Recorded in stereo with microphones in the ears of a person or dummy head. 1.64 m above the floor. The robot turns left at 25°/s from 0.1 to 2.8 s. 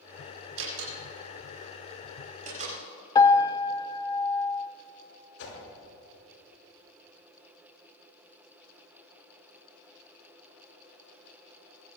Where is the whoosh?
75° left (ahead or behind), 5.5 m.